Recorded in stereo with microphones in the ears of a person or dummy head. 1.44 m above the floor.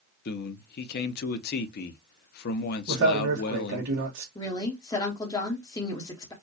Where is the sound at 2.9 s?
70° right (ahead or behind), 1.5 m.